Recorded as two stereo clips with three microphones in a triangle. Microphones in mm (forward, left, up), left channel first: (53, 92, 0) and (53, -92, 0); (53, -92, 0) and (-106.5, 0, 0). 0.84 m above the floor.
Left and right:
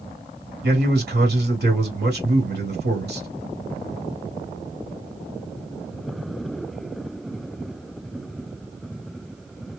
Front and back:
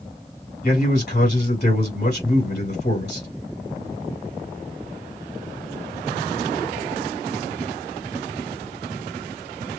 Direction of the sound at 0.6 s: 60° right.